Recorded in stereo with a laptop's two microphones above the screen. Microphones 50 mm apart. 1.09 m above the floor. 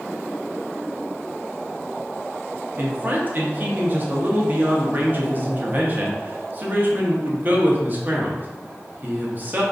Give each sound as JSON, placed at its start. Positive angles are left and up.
{"t": 2.8, "sound": "a man speaking", "side_deg": -40, "distance_m": 0.6}